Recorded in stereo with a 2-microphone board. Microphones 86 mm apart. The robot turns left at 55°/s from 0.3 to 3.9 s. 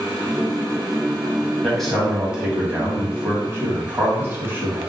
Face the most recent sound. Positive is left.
turn(degrees=-25)  # may be behind; listen again after turning